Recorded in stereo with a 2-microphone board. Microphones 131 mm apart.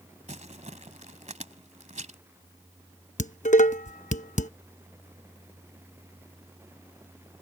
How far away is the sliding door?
I don't hear a sliding door.